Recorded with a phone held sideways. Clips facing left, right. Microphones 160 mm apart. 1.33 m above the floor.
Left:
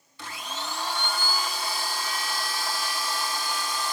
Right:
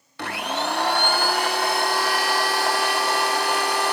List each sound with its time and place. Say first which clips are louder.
0.2 s a blender: right 10 dB; 65° right (ahead or behind)